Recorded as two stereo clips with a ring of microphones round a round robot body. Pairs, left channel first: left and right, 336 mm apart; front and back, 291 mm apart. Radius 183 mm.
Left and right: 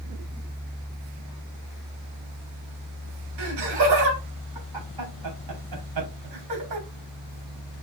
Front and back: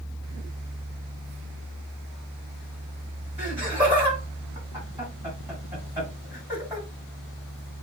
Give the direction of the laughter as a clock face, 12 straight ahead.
3 o'clock.